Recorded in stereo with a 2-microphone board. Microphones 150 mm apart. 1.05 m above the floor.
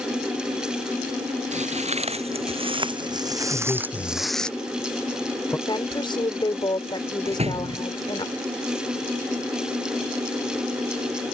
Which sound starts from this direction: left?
A woman speaking, at 5.7 s.